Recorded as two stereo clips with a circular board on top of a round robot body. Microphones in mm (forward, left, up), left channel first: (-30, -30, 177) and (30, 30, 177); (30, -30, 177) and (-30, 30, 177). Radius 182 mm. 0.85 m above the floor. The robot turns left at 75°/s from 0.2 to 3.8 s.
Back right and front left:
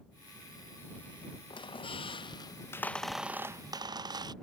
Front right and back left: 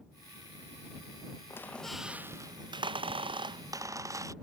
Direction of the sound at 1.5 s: 105° right.